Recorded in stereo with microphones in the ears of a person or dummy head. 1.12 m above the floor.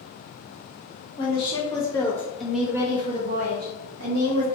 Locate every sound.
1.2 s a woman speaking: 30° left (ahead or behind), 1.5 m; by 4.5 s 75° right (ahead or behind), 1.1 m